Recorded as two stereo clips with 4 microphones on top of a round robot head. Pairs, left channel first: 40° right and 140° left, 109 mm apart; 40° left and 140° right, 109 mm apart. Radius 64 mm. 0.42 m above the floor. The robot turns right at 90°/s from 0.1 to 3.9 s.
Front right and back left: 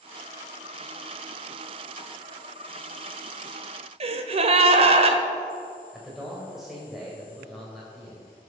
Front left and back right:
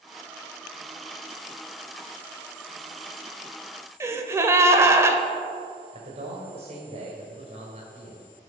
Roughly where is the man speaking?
Behind right.